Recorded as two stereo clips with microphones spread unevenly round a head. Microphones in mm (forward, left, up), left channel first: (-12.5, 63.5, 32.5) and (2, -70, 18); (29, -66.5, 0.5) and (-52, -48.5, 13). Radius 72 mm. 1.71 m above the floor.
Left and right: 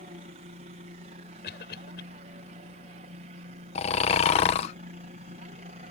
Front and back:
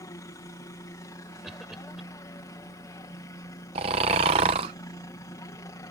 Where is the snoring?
140° left.